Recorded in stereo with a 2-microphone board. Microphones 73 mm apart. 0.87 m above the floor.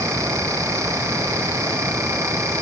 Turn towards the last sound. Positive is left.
No sound to turn to.